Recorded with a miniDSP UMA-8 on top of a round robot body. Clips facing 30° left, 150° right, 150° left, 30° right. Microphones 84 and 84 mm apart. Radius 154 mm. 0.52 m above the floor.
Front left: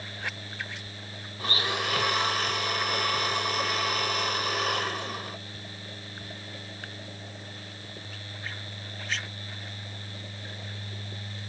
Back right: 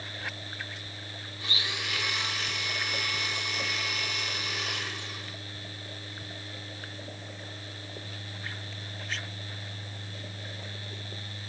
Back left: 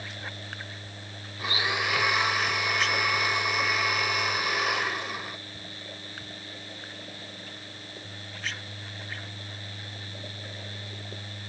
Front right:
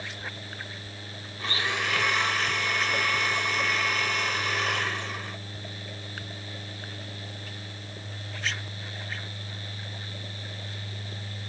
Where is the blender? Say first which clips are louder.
Front left 7 dB, back left 1 dB; 70° left.